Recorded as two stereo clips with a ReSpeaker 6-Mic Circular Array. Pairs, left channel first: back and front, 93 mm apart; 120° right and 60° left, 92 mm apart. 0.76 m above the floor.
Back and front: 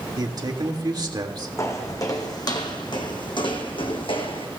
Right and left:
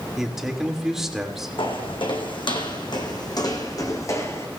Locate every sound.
0.2 s a man speaking: 25° right, 1.7 m
1.6 s footsteps: 130° right, 1.9 m; by 4.5 s straight behind, 1.9 m